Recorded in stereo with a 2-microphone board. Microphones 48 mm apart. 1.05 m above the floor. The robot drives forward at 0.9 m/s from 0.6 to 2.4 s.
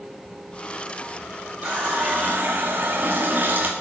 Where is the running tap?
25° right (ahead or behind), 1.7 m; by 3.7 s 40° right (ahead or behind), 1.1 m.